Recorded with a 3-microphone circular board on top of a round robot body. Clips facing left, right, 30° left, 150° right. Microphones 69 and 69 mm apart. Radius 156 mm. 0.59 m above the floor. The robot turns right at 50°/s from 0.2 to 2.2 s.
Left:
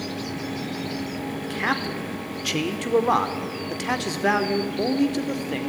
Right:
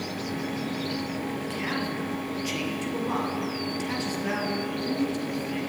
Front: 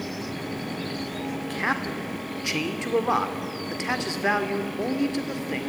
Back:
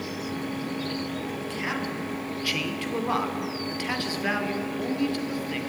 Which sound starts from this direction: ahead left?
A man speaking, at 1.5 s.